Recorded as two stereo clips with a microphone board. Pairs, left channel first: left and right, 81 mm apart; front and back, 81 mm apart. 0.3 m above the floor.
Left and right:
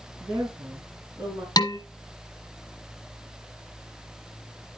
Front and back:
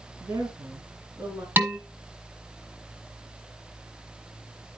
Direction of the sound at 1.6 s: 115° left.